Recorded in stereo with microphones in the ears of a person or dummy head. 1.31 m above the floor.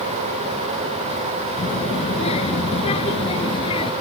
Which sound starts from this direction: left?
A child speaking, at 1.6 s.